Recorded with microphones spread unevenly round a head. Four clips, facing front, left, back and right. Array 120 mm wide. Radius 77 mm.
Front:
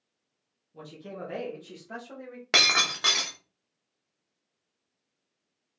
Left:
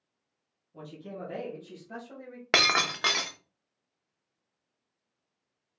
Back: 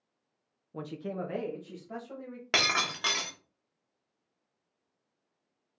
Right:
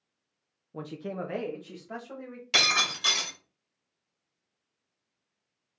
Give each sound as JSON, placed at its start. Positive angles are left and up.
{"t": 0.7, "sound": "a man speaking", "azimuth_deg": -110, "distance_m": 0.7}
{"t": 2.5, "sound": "breaking glass", "azimuth_deg": 50, "distance_m": 1.0}